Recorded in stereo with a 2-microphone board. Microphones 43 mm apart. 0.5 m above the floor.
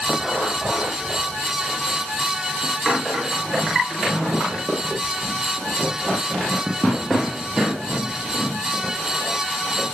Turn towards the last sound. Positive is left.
No sound to turn to.